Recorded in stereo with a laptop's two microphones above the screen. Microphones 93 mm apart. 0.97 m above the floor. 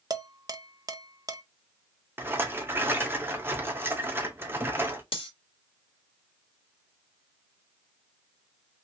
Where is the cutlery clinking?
90° left, 1.1 m.